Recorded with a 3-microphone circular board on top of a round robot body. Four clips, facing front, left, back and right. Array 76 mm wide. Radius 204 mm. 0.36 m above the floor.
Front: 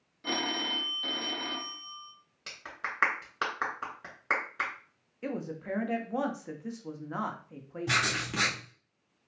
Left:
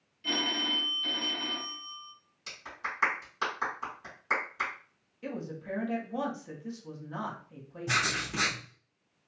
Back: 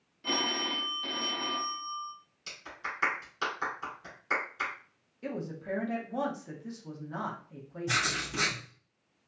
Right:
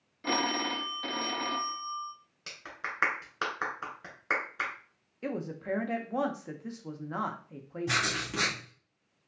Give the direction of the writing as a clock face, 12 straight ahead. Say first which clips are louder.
Left 2 dB, front 2 dB; 1 o'clock.